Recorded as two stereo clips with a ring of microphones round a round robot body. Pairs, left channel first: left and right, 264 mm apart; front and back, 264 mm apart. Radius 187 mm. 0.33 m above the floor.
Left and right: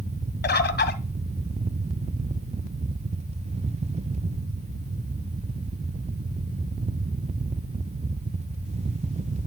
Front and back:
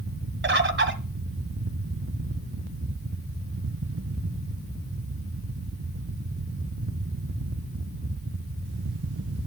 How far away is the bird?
About 2.0 m.